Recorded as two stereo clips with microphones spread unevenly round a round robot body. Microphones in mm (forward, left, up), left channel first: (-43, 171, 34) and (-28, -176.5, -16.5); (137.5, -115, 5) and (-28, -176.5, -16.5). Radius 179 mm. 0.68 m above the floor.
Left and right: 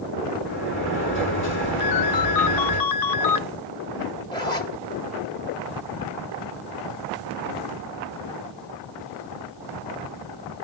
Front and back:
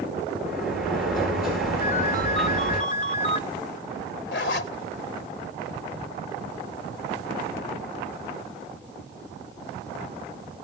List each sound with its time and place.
0.5 s a sliding door: 150° left, 9 m
1.8 s a ringtone: 75° left, 0.7 m
4.3 s a zipper: 15° left, 1.4 m